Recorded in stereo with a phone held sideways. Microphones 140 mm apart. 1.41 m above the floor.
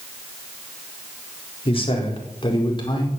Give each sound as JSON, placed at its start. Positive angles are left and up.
{"t": 1.6, "sound": "a man speaking", "side_deg": 40, "distance_m": 4.0}